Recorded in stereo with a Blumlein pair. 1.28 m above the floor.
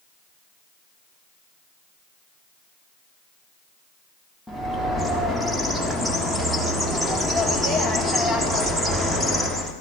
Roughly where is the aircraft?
No aircraft in this recording.